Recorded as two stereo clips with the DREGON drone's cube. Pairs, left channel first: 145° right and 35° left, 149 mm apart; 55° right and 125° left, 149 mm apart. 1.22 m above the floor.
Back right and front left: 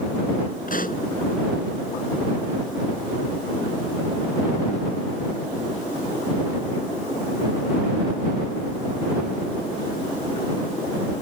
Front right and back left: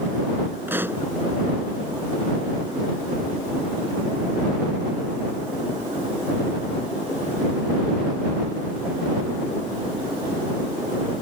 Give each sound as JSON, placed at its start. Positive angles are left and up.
{"t": 0.7, "sound": "a pop", "azimuth_deg": -160}